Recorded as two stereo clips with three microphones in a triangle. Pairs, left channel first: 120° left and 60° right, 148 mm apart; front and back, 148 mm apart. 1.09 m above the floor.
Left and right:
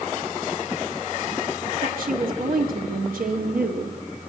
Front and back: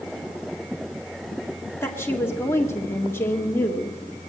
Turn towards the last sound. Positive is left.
turn(degrees=-75)